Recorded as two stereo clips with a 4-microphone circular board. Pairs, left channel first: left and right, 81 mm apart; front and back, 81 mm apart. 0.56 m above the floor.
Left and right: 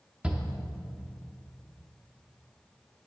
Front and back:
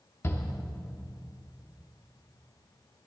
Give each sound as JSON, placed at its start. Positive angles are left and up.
{"t": 0.2, "sound": "a shout", "azimuth_deg": -20, "distance_m": 0.8}